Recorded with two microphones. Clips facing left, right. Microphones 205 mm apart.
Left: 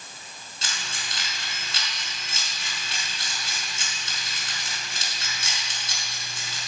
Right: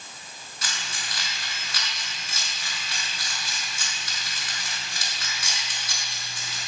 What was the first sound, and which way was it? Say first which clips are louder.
Keys jangling: even; 25° left (ahead or behind).